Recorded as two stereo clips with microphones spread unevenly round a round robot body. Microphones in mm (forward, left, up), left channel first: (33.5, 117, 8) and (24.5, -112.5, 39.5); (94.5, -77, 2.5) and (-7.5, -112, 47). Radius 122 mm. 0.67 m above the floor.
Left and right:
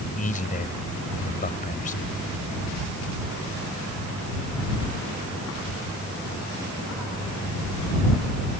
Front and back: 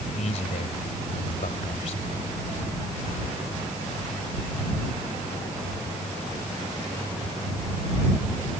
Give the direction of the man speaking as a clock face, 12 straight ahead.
11 o'clock.